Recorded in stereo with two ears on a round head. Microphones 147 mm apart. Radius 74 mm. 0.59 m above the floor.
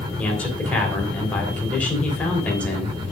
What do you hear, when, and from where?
0.2 s a man speaking: 10° left (ahead or behind), 3 m